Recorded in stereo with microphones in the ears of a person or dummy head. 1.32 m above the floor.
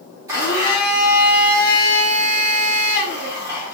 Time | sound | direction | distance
0.3 | a blender | 15° right (ahead or behind) | 1.3 m